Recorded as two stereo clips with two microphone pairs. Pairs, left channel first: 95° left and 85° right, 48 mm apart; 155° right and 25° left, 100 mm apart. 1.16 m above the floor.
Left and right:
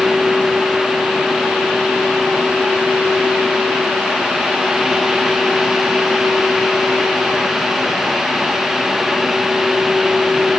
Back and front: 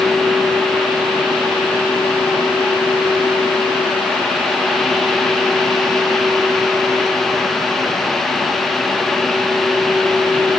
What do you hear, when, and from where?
Only background noise.